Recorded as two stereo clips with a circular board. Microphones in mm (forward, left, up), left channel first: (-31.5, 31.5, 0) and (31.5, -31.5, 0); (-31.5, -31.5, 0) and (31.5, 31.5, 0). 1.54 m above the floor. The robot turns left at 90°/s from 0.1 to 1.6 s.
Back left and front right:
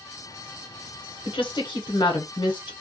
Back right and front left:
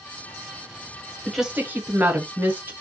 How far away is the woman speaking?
About 0.9 m.